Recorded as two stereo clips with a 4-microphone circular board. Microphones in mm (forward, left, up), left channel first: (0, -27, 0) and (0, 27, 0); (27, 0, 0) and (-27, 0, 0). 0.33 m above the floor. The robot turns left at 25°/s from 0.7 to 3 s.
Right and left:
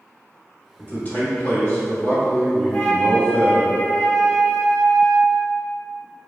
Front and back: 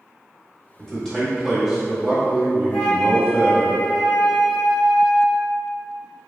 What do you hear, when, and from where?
0.8 s a man speaking: 75° right, 1.0 m; by 3.7 s 130° right, 1.0 m
2.7 s a flute: 60° right, 0.7 m; by 5.5 s 70° right, 0.7 m